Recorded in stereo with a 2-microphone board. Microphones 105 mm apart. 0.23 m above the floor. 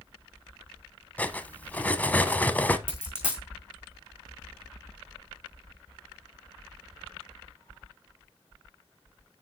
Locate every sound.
1.2 s cutlery clinking: 15° left (ahead or behind), 0.8 m
2.9 s a dropped coin: 10° right (ahead or behind), 4.5 m